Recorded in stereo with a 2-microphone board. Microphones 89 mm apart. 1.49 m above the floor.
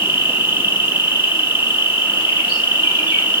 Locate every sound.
0.0 s an insect: 60° left (ahead or behind), 1.3 m